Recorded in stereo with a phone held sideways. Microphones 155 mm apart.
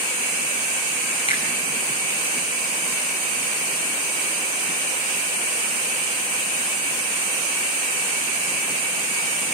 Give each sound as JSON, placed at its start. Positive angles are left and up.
{"t": 1.3, "sound": "a finger snap", "side_deg": 35, "distance_m": 7.5}